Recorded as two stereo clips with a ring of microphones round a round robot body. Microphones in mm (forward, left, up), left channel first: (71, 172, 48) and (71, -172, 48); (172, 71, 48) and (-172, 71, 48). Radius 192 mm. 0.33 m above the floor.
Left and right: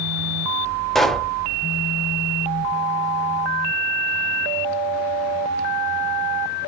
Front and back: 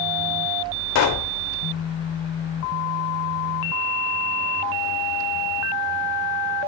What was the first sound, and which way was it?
A pop, straight ahead.